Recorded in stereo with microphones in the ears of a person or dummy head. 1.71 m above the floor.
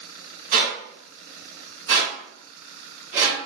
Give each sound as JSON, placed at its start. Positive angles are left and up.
{"t": 0.5, "sound": "a squeak", "side_deg": -45, "distance_m": 1.7}